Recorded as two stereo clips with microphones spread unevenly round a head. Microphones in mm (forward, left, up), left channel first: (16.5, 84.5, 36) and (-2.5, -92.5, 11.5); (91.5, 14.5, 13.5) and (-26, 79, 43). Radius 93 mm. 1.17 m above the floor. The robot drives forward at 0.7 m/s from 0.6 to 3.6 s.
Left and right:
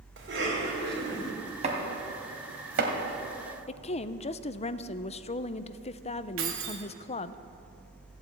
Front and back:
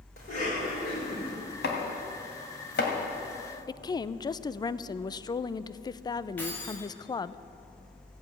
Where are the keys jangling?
110° right, 1.8 m.